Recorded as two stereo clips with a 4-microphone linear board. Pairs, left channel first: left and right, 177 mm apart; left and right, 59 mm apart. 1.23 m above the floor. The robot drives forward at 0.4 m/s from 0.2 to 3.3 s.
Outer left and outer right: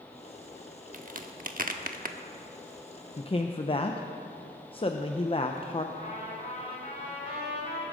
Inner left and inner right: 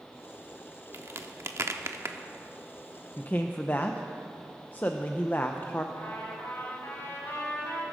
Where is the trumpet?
45° left (ahead or behind), 6.5 m.